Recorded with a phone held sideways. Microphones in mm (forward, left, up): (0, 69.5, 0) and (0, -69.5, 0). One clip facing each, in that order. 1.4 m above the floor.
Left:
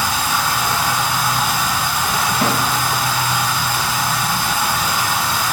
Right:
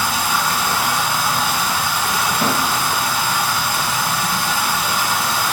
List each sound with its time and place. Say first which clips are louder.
0.0 s running water: even; 25° right (ahead or behind), 0.9 m
2.4 s a snare drum: left 1 dB; 15° left (ahead or behind), 0.9 m